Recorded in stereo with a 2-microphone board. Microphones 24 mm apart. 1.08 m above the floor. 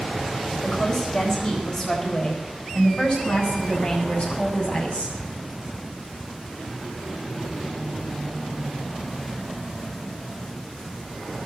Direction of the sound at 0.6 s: 25° left (ahead or behind).